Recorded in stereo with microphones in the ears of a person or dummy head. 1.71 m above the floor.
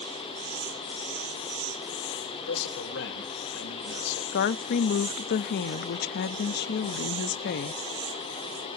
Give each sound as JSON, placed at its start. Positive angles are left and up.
{"t": 2.3, "sound": "a man speaking", "side_deg": 70, "distance_m": 3.0}
{"t": 4.3, "sound": "a woman speaking", "side_deg": 60, "distance_m": 0.6}